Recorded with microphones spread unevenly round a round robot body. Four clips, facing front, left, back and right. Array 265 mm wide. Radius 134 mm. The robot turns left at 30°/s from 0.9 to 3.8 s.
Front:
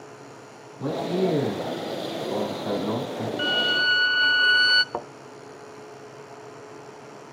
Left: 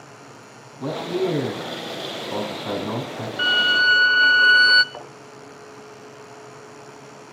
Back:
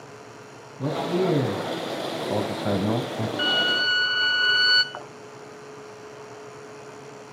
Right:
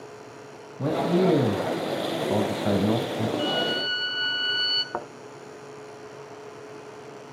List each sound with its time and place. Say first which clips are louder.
0.8 s a man speaking: right 2 dB, even; 100° right, 5 m; by 3.3 s 175° right, 5 m
3.4 s a violin: left 6 dB, front 1 dB; 105° left, 1.5 m; by 4.8 s 95° left, 1.5 m
4.9 s a thud: right 5 dB, front 6 dB; 30° right, 1.7 m